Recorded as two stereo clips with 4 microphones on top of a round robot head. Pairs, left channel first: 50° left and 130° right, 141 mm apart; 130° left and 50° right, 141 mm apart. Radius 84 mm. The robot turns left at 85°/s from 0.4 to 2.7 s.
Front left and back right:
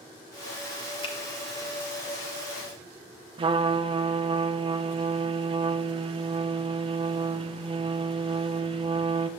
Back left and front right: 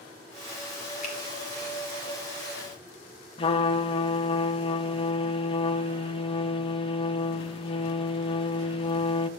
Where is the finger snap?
100° left, 1.6 m; by 1.1 s 90° left, 1.6 m.